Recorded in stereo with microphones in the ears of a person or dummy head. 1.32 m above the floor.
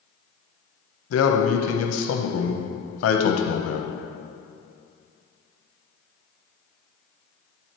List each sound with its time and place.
1.1 s a man speaking: 80° left, 0.9 m